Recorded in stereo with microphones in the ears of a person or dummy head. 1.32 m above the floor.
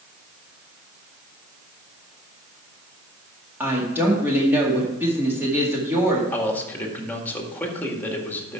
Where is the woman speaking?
10° right (ahead or behind), 2.0 m.